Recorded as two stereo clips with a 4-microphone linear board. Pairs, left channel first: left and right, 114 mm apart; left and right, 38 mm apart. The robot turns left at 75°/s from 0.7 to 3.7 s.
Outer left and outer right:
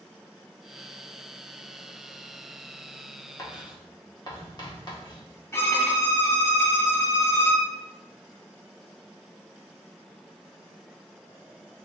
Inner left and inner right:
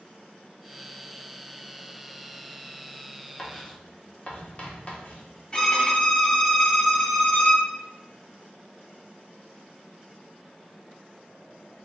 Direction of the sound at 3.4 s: 30° left (ahead or behind).